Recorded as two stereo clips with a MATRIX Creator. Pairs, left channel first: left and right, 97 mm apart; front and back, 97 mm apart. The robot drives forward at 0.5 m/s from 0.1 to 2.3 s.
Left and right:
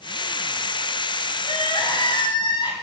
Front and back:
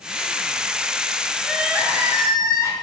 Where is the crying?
90° left, 0.7 m; by 2.7 s 125° left, 0.8 m.